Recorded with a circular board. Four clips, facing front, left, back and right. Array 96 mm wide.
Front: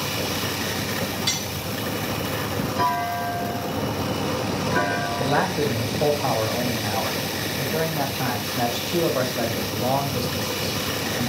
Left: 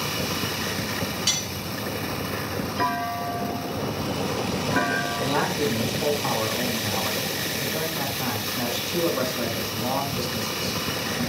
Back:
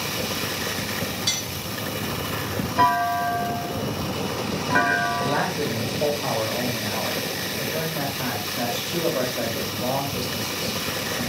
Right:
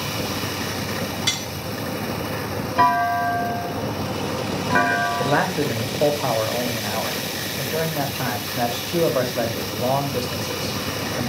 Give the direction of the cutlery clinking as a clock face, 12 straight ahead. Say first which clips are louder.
Right 3 dB, front 2 dB; 3 o'clock.